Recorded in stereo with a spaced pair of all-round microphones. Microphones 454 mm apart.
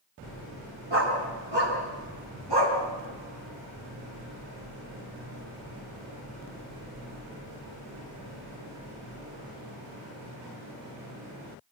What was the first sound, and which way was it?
A dog barking, 65° right (ahead or behind).